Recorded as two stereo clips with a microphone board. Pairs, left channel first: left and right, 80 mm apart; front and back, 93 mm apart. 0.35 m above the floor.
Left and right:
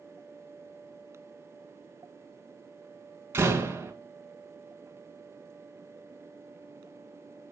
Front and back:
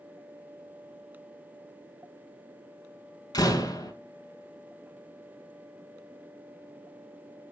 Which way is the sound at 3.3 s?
40° right.